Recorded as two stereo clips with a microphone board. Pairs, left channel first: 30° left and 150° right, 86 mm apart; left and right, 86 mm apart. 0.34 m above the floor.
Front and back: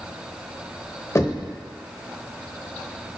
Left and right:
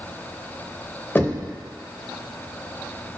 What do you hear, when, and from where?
1.1 s knocking: 45° left, 0.8 m